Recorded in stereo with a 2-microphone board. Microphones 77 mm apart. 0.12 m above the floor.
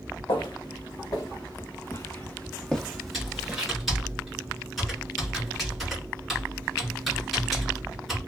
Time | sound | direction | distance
0.3 | footsteps | 75° left (ahead or behind) | 1.4 m
3.1 | typing on a keyboard | centre (ahead or behind) | 1.8 m